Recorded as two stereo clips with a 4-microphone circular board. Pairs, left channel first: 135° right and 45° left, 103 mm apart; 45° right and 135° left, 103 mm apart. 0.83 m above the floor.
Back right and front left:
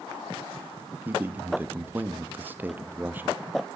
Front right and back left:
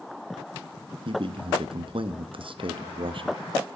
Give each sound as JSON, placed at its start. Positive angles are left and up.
{"t": 1.1, "sound": "a man speaking", "azimuth_deg": 115, "distance_m": 0.6}